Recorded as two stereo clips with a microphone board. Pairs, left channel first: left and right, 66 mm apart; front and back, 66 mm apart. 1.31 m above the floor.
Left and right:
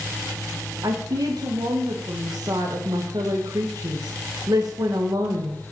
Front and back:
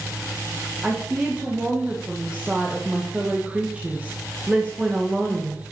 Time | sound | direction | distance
0.8 | a woman speaking | 105° right | 1.7 m